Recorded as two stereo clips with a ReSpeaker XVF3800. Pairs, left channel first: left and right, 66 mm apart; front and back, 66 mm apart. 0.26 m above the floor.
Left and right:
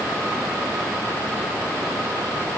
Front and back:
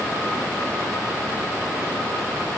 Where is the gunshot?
I don't hear a gunshot.